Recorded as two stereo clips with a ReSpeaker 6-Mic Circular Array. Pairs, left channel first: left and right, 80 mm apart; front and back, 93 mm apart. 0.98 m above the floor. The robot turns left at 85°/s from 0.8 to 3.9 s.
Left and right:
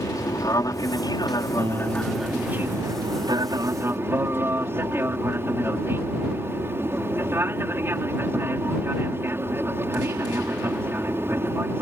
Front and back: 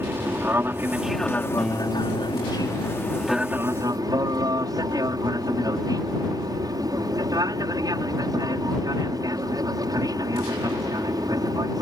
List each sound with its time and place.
0.0 s an aircraft: 120° left; by 11.8 s 145° right
1.6 s a guitar: 85° right; by 3.2 s 140° left